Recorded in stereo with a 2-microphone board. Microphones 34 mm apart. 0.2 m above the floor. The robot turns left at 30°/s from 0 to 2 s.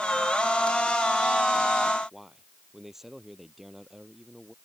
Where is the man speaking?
10° right (ahead or behind).